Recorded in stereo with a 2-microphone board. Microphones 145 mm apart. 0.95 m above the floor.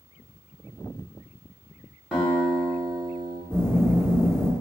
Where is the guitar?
5° right (ahead or behind), 1.1 m.